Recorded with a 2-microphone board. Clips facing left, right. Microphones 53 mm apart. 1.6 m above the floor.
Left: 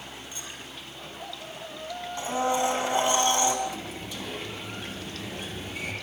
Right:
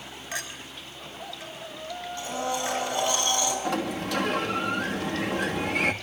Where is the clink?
75° right (ahead or behind), 4.5 m.